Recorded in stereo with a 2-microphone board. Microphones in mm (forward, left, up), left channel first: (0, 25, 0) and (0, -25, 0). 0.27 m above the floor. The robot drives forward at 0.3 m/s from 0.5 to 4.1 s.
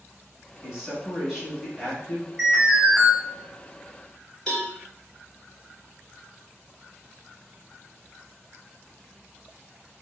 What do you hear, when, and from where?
0.6 s a man speaking: 10° right (ahead or behind), 1.3 m; by 2.3 s 15° right (ahead or behind), 1.1 m
2.4 s an alarm: 10° right (ahead or behind), 1.6 m
4.5 s a cowbell: 5° left (ahead or behind), 1.3 m